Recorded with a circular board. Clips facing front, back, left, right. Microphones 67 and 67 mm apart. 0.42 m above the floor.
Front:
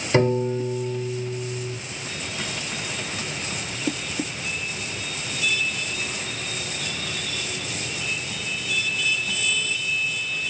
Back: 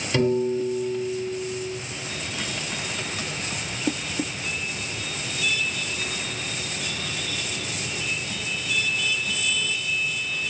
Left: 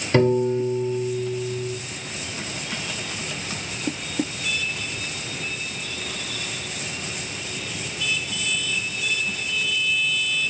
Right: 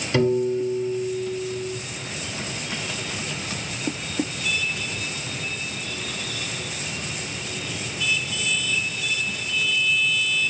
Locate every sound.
0.1 s a piano: 50° left, 1.9 m